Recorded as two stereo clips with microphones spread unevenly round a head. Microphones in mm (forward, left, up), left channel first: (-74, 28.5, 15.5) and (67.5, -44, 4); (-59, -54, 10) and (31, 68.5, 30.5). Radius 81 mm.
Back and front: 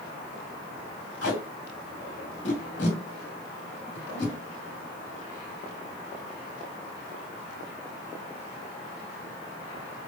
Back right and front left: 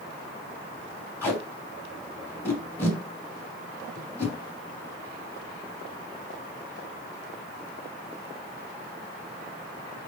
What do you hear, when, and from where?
1.2 s tape being pulled: 155° left, 1.7 m